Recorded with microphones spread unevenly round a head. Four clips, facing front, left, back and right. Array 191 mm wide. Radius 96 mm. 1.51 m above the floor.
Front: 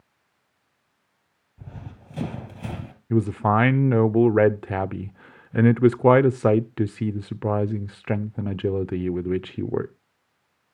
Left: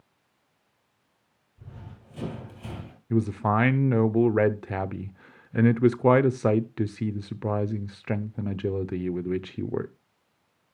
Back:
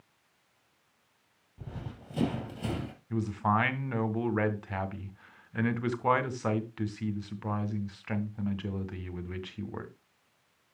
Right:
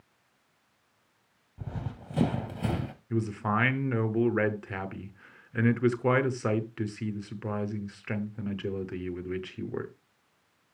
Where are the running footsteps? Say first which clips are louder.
Right 8 dB, front 1 dB; 100° right, 2.5 m; by 2.9 s 90° right, 1.9 m.